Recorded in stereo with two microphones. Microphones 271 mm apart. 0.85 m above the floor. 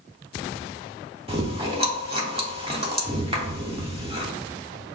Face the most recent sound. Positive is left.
turn(degrees=-20)  # may be behind; listen again after turning